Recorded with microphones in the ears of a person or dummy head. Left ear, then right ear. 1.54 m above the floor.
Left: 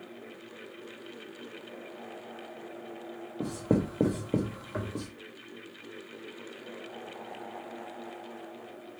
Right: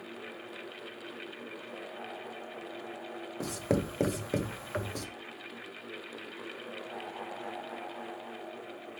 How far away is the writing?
About 0.7 m.